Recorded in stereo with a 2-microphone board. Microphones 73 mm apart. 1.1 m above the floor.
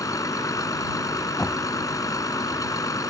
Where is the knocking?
10° left (ahead or behind).